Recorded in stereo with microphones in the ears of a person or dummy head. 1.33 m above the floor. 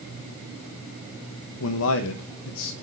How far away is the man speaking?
About 0.9 m.